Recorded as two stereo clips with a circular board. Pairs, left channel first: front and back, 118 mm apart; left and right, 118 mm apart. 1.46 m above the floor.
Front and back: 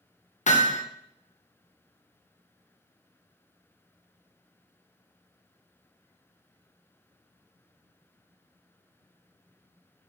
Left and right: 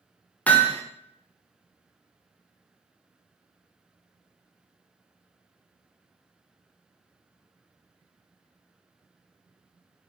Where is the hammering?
10° left, 0.6 m.